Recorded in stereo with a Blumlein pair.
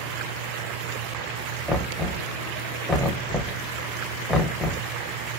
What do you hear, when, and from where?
1.7 s knocking: straight ahead, 0.7 m